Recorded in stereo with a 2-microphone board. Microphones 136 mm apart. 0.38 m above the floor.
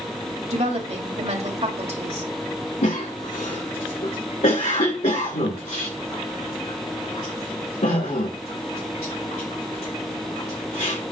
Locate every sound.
0.5 s a woman speaking: 55° right (ahead or behind), 2 m
2.8 s a cough: 70° left (ahead or behind), 3 m